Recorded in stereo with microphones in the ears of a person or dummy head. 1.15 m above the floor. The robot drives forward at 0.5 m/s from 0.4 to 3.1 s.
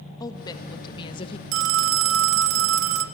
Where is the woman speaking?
20° left (ahead or behind), 1.5 m; by 1.4 s 30° left (ahead or behind), 1.1 m.